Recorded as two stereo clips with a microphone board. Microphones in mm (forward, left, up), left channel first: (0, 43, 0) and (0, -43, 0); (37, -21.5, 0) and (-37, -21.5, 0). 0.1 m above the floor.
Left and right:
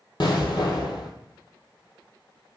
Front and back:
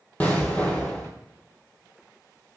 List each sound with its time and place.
0.2 s an explosion: 70° left, 0.7 m